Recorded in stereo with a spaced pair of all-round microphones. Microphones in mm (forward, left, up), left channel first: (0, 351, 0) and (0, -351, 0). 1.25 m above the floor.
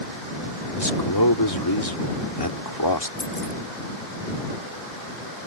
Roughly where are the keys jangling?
Left.